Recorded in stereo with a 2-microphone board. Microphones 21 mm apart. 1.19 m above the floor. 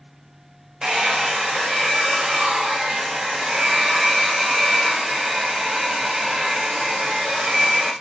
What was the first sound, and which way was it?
A hair dryer, 45° right (ahead or behind).